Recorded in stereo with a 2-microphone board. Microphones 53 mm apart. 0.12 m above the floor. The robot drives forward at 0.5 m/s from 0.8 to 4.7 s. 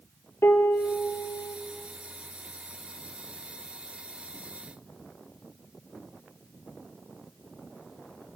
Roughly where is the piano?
Left.